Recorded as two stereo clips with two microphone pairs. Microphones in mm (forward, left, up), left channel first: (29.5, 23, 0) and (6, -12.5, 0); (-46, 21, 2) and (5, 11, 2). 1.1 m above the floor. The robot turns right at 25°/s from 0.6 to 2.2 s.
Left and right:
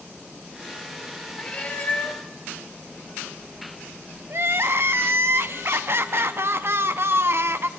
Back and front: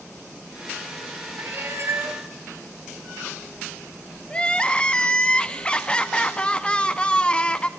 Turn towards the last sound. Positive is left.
turn(degrees=-130)